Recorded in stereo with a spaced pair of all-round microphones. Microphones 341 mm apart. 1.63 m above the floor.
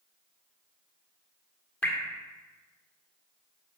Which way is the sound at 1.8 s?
5° left (ahead or behind).